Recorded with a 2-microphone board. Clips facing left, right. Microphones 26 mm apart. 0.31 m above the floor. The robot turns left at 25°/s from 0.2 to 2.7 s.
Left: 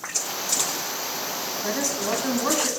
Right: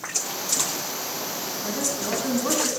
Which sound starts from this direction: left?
A woman speaking, at 1.6 s.